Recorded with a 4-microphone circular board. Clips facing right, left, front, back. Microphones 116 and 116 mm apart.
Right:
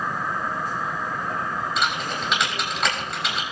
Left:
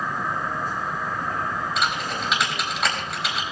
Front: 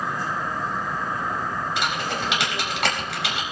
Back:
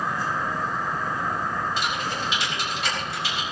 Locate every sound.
1.8 s typing on a keyboard: straight ahead, 4.5 m